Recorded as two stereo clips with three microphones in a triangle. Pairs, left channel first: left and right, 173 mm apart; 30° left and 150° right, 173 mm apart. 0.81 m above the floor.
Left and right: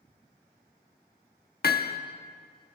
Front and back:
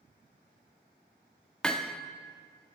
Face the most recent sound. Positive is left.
turn(degrees=115)